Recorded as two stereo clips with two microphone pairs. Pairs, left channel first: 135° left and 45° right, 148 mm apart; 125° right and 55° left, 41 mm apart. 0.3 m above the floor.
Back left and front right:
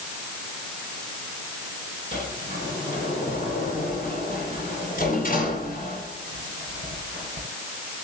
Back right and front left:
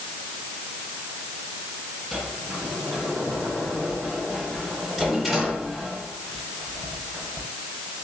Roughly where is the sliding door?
Behind left.